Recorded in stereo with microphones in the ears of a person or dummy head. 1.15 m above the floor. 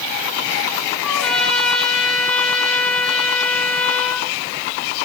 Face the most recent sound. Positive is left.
turn(degrees=0)  # may be behind; listen again after turning